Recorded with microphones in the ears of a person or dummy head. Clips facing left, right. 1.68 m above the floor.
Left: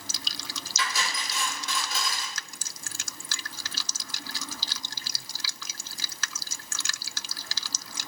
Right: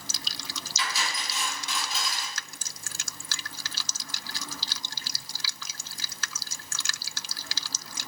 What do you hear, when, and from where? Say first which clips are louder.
0.8 s cutlery clinking: left 1 dB; 40° left (ahead or behind), 3 m